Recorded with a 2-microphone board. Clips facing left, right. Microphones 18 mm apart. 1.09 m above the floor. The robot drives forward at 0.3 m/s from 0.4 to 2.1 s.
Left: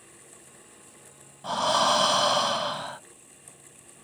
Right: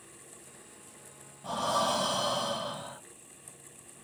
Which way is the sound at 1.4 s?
45° left (ahead or behind).